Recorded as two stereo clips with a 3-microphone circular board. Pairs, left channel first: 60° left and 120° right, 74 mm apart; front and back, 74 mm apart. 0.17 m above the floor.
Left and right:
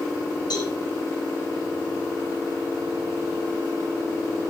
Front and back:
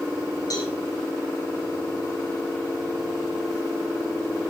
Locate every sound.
0.5 s a cowbell: 40° left, 7 m